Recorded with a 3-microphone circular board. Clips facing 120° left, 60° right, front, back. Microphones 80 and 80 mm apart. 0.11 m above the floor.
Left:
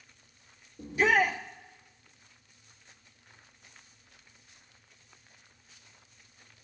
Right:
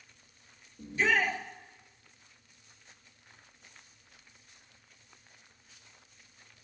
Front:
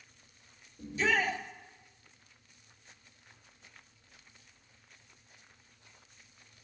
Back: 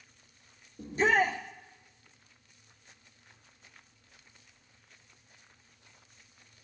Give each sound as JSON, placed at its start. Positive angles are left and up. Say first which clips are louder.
{"t": 0.8, "sound": "a shout", "louder": "left 3 dB, back 4 dB", "azimuth_deg": -170, "distance_m": 2.0}